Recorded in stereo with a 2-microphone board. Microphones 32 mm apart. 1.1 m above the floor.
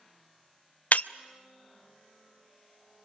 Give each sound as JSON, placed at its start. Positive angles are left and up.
{"t": 0.9, "sound": "breaking glass", "side_deg": 60, "distance_m": 0.5}